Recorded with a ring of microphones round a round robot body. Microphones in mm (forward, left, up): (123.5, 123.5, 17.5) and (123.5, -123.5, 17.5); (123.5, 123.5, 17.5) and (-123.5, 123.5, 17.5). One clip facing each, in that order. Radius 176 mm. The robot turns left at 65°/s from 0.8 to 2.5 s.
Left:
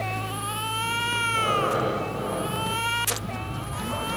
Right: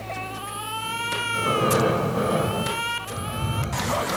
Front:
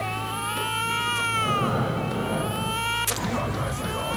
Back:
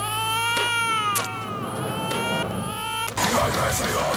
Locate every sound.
1.3 s breathing: 20° right, 0.7 m; by 4.1 s 95° right, 0.7 m